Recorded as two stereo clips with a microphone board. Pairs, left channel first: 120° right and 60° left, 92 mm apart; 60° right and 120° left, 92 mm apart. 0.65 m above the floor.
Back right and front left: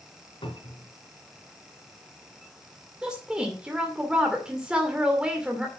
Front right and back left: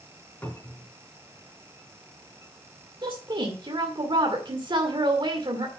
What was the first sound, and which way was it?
A cupboard door, 130° right.